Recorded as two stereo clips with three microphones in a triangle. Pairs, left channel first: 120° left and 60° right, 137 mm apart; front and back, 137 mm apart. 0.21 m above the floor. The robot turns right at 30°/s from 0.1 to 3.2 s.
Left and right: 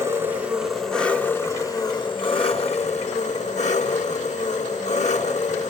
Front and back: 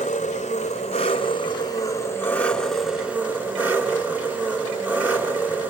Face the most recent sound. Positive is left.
turn(degrees=105)